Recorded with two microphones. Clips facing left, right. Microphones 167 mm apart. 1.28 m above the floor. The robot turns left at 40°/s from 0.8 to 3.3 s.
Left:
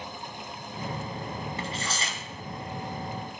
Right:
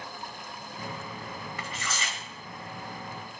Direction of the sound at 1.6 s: 25° left (ahead or behind).